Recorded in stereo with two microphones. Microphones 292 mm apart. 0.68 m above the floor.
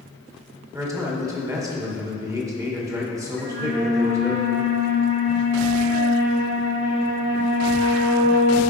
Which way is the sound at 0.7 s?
10° right (ahead or behind).